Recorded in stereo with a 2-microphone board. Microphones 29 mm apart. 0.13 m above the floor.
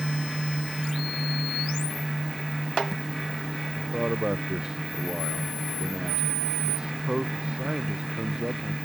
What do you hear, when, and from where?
3.8 s a man speaking: 25° right (ahead or behind)